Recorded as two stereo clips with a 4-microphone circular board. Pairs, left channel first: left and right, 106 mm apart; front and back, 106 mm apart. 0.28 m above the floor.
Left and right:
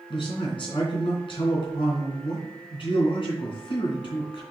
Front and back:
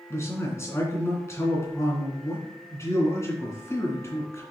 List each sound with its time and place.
0.1 s a man speaking: 60° left, 2.5 m